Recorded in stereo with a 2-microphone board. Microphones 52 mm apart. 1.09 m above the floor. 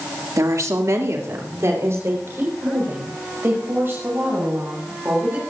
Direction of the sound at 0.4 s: 80° right.